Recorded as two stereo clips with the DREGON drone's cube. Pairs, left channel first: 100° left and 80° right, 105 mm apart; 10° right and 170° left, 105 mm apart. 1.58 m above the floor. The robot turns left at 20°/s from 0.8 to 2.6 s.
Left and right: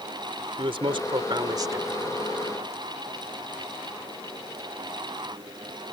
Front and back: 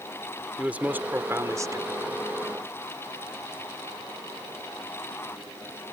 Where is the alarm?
I don't hear an alarm.